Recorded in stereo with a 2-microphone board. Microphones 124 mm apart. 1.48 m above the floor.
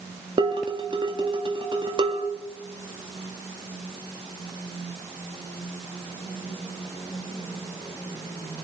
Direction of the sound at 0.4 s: 45° right (ahead or behind).